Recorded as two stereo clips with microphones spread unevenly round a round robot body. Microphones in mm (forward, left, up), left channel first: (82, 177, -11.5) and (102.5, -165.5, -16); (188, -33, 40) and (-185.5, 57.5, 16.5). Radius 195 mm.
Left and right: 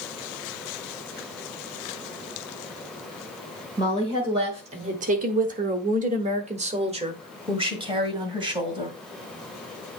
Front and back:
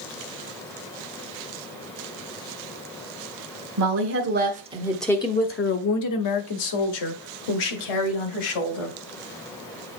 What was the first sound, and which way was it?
A woman speaking, 165° right.